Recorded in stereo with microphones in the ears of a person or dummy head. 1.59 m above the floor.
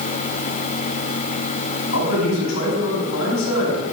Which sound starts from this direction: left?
A man speaking, at 1.9 s.